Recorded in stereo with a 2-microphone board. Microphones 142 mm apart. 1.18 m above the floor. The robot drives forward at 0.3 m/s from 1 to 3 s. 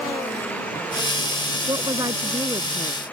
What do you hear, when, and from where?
1.7 s a woman speaking: 30° right (ahead or behind)